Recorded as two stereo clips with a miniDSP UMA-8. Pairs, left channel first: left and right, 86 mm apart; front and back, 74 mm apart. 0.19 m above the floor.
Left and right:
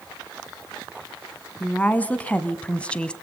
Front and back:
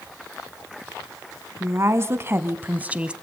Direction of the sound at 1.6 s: 155° left.